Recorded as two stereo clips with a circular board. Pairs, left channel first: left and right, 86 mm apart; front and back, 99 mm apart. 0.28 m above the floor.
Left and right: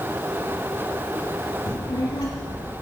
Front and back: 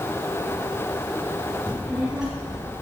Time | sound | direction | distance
1.7 | a child speaking | 85° left | 1.7 m